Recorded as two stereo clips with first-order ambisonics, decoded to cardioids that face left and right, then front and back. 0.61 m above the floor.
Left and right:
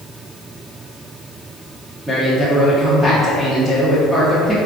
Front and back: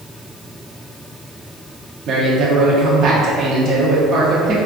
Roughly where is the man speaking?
Behind.